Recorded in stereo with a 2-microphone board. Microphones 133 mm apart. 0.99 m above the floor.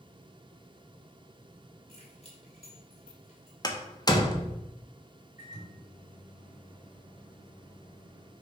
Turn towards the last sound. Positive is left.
turn(degrees=65)  # may be behind; listen again after turning